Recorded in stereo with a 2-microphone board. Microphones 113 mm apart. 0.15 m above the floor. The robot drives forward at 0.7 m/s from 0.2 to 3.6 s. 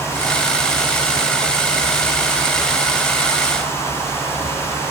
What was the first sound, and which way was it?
Only background noise.